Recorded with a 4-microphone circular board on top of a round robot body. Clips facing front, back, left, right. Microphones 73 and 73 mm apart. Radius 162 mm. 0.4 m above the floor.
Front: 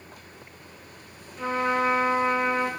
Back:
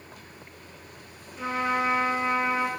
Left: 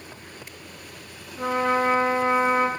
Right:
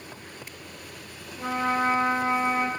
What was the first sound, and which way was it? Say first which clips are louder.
A trumpet: front 2 dB, left 3 dB; 95° left.